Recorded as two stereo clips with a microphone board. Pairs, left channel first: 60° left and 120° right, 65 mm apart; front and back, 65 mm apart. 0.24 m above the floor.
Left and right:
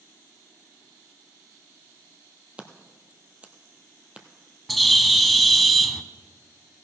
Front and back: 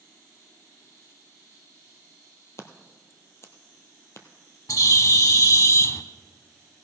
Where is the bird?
30° right, 0.5 m.